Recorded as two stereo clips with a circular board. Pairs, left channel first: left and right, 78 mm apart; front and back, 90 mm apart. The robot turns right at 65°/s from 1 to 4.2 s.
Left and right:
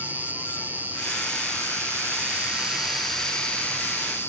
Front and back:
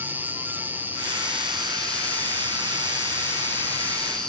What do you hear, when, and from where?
0.0 s an insect: 130° right, 0.8 m; by 4.3 s 75° left, 0.8 m